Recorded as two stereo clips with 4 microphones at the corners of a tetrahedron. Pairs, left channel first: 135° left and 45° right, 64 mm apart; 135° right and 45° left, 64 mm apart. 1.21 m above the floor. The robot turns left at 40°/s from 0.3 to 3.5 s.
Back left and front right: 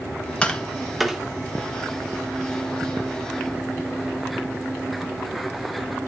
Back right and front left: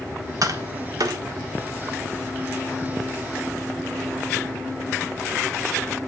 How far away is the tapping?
About 1.3 m.